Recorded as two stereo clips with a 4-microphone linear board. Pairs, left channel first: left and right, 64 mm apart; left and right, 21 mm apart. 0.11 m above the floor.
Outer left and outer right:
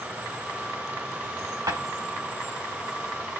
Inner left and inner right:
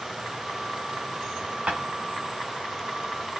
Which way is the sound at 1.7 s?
70° right (ahead or behind).